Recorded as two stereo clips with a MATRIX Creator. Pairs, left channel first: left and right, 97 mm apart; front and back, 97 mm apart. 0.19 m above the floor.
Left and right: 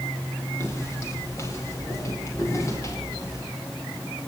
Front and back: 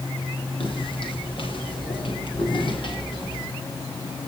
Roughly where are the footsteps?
Ahead left.